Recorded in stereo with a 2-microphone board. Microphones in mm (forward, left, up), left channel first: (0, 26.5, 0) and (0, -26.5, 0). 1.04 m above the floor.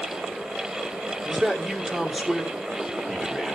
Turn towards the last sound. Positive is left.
turn(degrees=-10)  # may be behind; listen again after turning